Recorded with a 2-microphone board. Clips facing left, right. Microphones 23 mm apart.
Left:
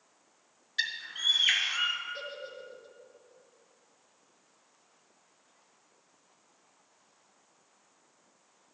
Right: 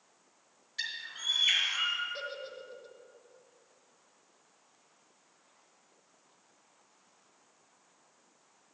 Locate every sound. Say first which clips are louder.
0.8 s a bird: left 6 dB; 40° left (ahead or behind), 1.9 m
2.1 s a giggle: even; 15° right (ahead or behind), 1.0 m